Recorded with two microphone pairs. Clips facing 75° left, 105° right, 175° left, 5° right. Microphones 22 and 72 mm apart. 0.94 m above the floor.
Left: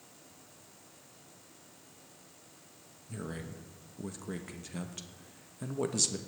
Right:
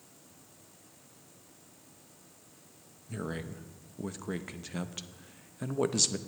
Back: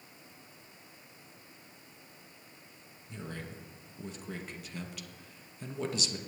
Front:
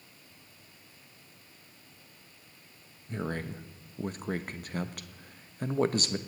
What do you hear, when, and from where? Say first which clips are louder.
3.1 s a man speaking: right 4 dB, front 8 dB; 35° right, 0.8 m